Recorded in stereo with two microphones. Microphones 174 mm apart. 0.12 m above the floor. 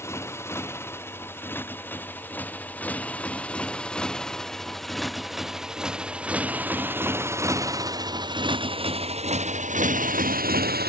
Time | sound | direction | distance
0.0 | a motorcycle | 15° left (ahead or behind) | ?